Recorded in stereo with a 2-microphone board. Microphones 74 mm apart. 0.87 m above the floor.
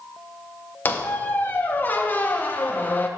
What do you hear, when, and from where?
0.8 s a squeak: 25° left (ahead or behind), 0.5 m